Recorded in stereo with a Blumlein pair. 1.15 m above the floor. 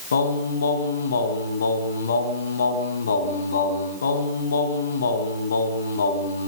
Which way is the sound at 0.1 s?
70° left.